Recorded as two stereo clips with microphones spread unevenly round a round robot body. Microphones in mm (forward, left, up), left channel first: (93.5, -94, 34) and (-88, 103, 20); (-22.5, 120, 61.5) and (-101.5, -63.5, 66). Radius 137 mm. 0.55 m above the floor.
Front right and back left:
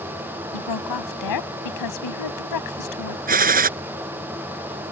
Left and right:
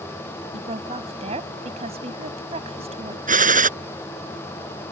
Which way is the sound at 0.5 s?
45° right.